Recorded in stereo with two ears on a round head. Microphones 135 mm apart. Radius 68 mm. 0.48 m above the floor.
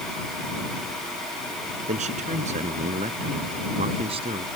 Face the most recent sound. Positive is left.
turn(degrees=-40)  # may be behind; listen again after turning